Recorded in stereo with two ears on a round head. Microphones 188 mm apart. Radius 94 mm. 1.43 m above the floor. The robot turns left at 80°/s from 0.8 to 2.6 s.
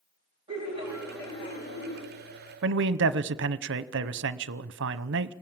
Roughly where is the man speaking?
Right.